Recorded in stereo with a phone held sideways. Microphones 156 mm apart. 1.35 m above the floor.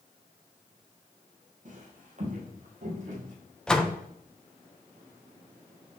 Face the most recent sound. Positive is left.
turn(degrees=5)  # may be behind; listen again after turning